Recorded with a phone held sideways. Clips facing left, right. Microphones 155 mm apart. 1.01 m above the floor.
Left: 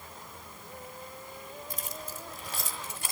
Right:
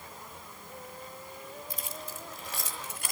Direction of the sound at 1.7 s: 50° left (ahead or behind).